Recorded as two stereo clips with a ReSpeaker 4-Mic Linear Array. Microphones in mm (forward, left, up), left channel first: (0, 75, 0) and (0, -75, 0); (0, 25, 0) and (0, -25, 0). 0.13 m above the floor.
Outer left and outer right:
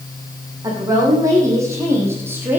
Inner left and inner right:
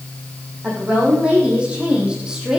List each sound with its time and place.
0.6 s a woman speaking: 25° right (ahead or behind), 6 m; by 2.6 s 15° right (ahead or behind), 4 m